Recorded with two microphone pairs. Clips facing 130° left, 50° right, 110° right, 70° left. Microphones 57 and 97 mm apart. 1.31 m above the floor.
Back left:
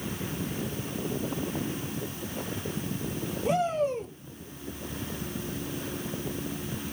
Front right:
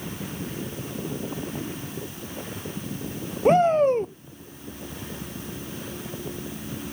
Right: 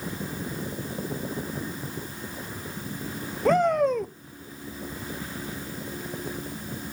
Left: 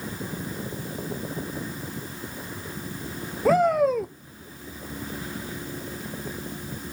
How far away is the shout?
About 0.5 m.